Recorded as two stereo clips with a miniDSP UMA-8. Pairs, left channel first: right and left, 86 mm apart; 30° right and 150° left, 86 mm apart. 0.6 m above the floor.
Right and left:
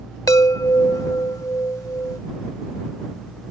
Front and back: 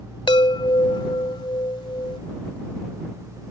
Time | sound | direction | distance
0.3 | a chime | 45° right | ?